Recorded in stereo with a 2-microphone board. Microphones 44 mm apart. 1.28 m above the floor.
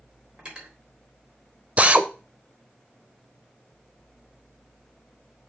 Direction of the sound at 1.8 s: 30° right (ahead or behind).